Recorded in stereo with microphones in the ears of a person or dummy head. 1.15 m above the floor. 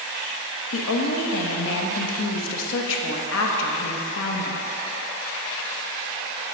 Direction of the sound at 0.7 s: 70° left (ahead or behind).